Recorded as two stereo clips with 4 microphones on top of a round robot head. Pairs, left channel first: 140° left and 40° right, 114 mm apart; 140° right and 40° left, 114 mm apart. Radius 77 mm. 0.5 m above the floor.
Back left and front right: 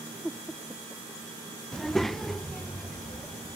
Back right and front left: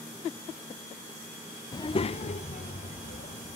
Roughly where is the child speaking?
Behind right.